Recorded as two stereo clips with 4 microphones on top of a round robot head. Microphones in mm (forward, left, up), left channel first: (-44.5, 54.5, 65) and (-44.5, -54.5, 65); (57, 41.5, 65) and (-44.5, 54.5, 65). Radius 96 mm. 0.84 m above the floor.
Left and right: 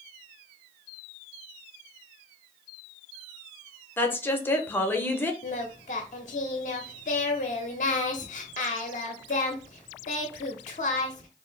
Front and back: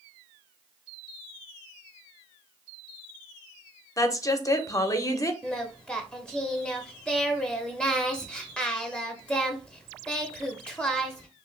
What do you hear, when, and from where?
4.0 s a woman speaking: 30° left, 0.7 m
5.4 s singing: 75° left, 0.5 m